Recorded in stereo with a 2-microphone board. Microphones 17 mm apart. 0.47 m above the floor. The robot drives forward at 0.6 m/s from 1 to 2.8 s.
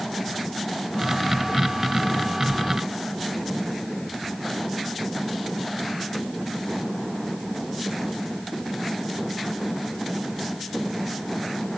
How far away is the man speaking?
I don't hear a man speaking.